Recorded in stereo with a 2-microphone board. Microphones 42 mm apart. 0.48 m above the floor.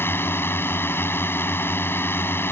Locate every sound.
0.0 s a drone: 65° left (ahead or behind)